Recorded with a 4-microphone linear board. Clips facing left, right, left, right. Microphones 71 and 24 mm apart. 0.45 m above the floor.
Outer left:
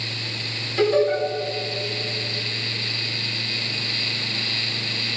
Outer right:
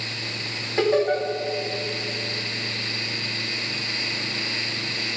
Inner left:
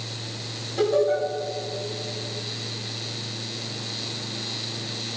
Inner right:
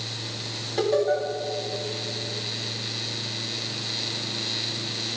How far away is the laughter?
About 4 m.